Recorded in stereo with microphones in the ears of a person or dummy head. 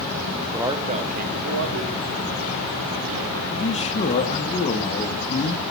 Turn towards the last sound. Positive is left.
turn(degrees=35)  # may be behind; listen again after turning